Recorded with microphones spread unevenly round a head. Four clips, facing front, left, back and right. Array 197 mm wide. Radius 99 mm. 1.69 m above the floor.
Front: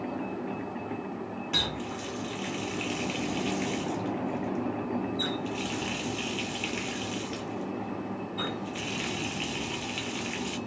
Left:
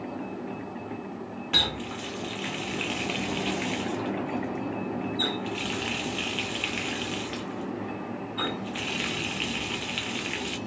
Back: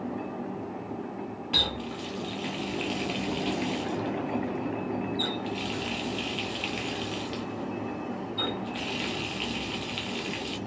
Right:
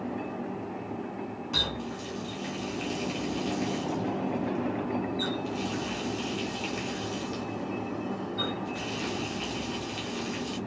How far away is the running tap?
About 0.7 m.